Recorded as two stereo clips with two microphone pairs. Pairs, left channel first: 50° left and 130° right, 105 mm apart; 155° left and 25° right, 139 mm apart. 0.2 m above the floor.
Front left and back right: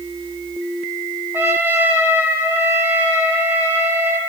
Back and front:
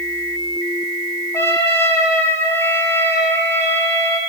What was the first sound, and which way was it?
A trumpet, 165° right.